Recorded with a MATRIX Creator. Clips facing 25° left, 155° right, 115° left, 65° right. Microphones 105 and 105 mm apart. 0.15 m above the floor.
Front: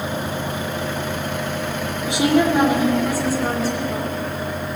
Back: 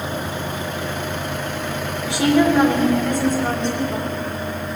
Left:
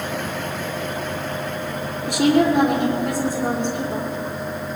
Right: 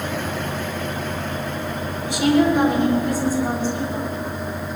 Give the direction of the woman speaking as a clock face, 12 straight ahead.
9 o'clock.